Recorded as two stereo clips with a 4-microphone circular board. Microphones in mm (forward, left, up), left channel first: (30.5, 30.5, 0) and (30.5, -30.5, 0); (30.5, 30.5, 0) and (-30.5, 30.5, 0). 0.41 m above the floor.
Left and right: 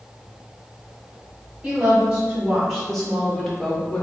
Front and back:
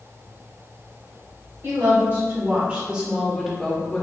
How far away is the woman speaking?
About 1.4 m.